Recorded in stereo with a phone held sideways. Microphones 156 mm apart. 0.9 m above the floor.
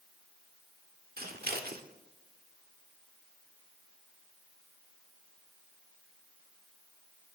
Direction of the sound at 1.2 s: 85° right.